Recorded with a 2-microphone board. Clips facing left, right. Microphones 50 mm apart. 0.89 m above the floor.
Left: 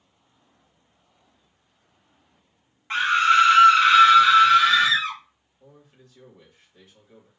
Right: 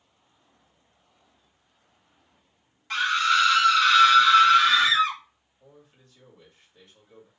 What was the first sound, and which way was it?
A scream, 25° left (ahead or behind).